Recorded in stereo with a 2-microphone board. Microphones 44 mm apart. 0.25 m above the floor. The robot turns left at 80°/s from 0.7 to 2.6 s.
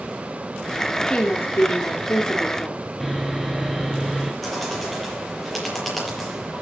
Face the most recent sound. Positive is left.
turn(degrees=5)  # may be behind; listen again after turning